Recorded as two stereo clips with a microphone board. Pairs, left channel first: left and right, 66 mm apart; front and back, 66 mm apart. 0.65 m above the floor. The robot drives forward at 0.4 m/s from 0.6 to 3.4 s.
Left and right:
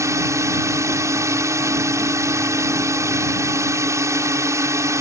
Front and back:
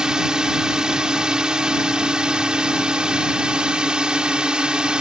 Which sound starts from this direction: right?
A drone, at 0.0 s.